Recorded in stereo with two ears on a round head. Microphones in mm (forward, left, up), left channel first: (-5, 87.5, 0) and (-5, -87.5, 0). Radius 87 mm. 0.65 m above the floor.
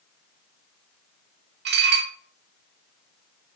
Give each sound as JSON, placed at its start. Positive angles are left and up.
{"t": 1.6, "sound": "dishes clattering", "side_deg": -55, "distance_m": 0.7}